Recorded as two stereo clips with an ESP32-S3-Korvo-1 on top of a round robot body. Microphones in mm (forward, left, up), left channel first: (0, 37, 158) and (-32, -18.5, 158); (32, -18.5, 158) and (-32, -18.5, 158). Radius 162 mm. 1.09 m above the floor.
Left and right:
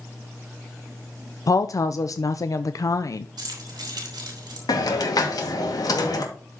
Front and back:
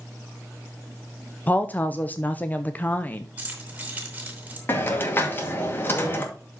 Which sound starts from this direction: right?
Keys jangling, at 3.4 s.